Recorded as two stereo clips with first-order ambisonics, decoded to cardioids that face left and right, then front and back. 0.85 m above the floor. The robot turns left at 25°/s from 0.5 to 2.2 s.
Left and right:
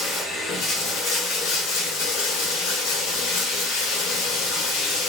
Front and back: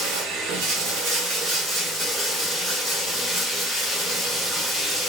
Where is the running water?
155° left, 2 m; by 5.1 s 115° left, 2 m.